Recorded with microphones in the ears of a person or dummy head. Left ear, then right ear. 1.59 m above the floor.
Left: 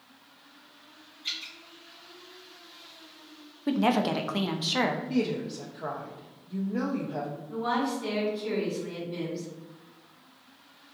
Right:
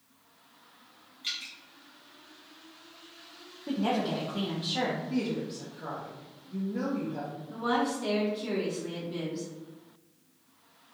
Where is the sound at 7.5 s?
5° right (ahead or behind), 1.3 m.